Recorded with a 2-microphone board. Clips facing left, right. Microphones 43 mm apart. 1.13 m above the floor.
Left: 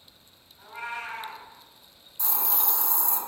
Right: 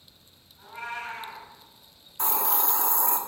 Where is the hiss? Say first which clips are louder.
Right 5 dB; 50° right (ahead or behind), 1.2 m.